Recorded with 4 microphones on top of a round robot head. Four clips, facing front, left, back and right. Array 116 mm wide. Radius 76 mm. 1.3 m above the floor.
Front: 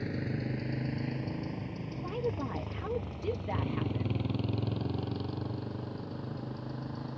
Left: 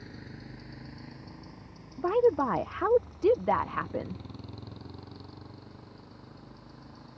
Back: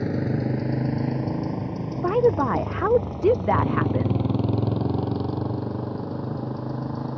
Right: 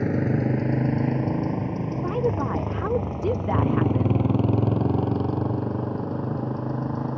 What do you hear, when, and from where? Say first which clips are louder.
0.0 s a motorcycle: right 23 dB, back 10 dB; 120° right
2.0 s a woman speaking: left 2 dB, back 16 dB; 165° left